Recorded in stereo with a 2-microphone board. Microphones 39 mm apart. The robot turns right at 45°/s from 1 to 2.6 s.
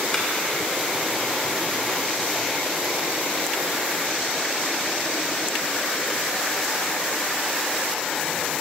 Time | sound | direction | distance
0.1 | a clap | 15° left (ahead or behind) | 1.9 m